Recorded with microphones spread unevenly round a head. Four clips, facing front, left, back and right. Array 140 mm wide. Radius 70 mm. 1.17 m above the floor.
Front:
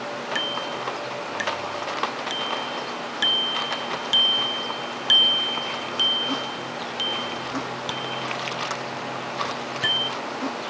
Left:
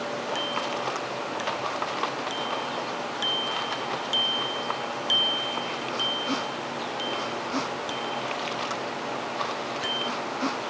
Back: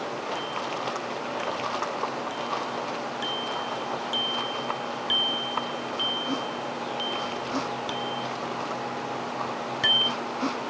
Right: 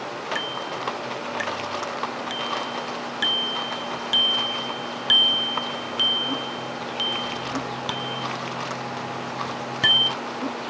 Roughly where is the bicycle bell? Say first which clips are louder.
Left 1 dB, front 2 dB; ahead right.